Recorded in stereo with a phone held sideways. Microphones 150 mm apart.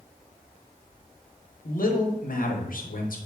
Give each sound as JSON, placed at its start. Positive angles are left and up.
{"t": 1.6, "sound": "a man speaking", "side_deg": 70, "distance_m": 0.8}